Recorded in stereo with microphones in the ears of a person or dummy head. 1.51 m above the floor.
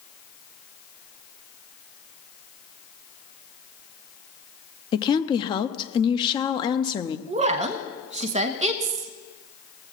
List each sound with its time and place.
4.9 s a woman speaking: 30° left (ahead or behind), 0.6 m
7.3 s a woman speaking: 40° right (ahead or behind), 0.8 m